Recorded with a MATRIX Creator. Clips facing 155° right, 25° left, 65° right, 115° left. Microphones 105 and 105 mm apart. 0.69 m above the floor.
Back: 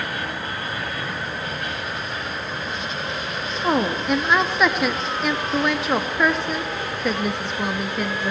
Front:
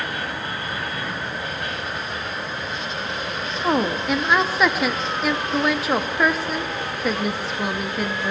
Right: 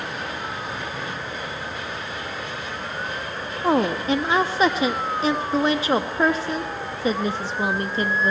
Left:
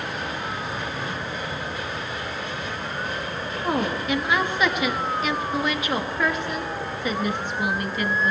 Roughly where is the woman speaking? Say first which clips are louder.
Even, right 5 dB; ahead right.